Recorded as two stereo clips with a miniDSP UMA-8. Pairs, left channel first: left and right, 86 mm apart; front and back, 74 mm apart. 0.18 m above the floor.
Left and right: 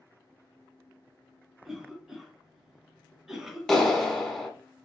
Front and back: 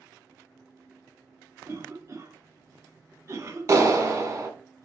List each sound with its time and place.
1.6 s a cough: 175° right, 1.2 m
3.7 s a clap: 170° left, 1.1 m